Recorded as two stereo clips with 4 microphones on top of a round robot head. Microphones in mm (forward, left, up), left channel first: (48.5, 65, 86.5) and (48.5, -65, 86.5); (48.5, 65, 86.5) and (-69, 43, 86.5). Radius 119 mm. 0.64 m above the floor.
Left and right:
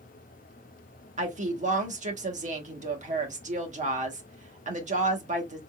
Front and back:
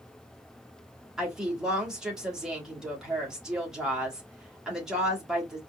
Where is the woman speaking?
85° right, 1.4 m.